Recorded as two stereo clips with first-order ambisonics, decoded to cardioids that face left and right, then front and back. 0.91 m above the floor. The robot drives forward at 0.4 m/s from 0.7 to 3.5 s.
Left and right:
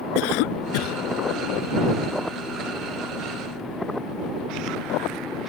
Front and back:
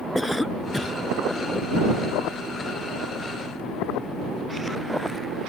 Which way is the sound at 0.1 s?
85° left.